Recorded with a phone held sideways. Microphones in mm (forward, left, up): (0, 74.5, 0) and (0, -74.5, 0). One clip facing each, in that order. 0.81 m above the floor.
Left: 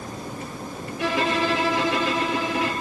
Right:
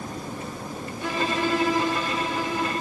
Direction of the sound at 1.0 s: 85° left.